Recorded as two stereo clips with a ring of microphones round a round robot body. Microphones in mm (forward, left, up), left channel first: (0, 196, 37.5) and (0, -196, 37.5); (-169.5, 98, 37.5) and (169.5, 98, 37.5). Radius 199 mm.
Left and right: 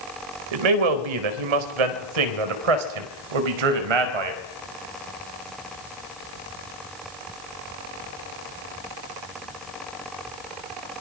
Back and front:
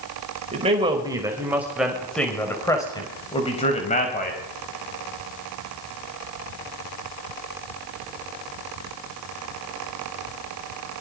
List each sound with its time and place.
0.5 s a man speaking: 75° right, 4 m; by 4.4 s 110° right, 4.5 m